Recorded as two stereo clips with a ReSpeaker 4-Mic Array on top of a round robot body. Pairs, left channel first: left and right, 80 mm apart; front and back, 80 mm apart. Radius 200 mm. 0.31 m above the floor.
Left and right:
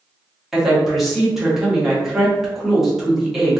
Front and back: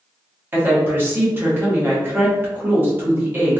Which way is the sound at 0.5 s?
170° right.